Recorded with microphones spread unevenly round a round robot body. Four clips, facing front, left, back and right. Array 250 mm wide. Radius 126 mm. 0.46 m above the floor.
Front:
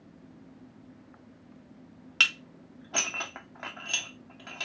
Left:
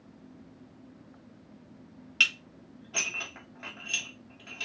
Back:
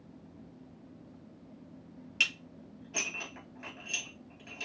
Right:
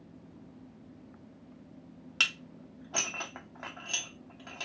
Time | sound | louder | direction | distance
2.2 | dishes clattering | left 3 dB, front 7 dB | 20° right | 1.7 m